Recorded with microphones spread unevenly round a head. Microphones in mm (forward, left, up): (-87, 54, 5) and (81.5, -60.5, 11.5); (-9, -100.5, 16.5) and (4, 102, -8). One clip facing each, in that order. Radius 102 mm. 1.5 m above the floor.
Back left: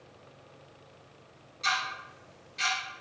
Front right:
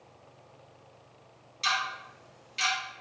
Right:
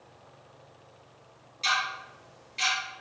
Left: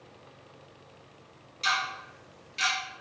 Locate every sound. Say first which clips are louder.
1.6 s ticking: even, even; 10° left, 1.4 m